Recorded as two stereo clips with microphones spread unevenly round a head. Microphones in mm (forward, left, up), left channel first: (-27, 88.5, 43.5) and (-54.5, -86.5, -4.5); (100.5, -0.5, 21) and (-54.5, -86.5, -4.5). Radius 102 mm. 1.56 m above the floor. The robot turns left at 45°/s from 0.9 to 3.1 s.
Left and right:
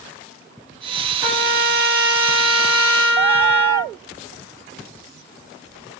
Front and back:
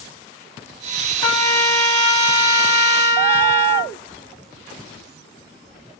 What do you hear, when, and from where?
1.2 s a trumpet: 15° right, 1.3 m; by 3.9 s 100° right, 1.3 m